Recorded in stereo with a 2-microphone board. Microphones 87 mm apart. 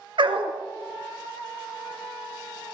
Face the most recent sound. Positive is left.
turn(degrees=-70)  # may be behind; listen again after turning